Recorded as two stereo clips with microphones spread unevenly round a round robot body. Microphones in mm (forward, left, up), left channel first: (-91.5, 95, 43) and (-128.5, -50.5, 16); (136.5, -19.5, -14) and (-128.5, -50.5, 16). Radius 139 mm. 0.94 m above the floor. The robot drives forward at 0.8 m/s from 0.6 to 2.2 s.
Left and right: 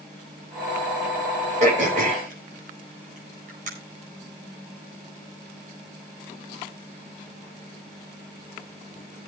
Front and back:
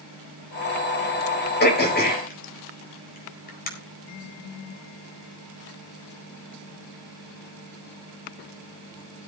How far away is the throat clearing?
About 4.5 m.